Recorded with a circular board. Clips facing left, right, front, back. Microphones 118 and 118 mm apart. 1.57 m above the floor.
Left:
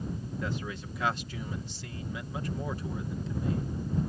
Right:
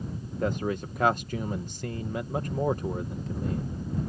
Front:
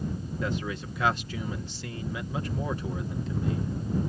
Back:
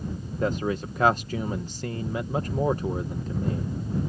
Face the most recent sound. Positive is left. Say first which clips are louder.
# right 10 dB, back 7 dB
turn(degrees=-130)